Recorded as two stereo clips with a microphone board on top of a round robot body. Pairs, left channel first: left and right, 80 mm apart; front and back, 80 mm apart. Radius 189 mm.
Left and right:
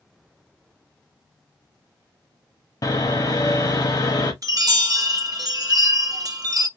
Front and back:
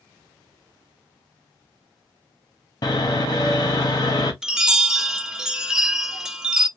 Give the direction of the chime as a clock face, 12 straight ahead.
3 o'clock.